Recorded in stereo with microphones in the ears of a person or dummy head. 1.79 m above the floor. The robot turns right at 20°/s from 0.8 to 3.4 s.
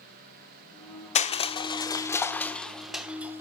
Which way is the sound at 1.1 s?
30° left (ahead or behind).